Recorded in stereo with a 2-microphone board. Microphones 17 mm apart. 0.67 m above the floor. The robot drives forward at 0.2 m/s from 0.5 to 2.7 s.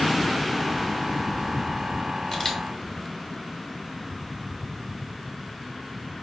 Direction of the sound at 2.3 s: 10° left (ahead or behind).